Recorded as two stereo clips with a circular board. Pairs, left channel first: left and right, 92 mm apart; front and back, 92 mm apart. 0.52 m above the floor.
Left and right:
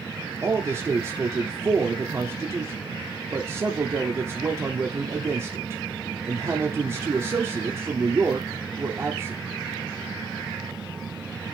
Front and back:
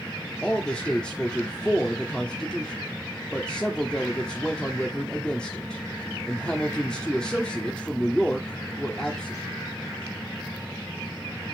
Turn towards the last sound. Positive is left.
turn(degrees=-70)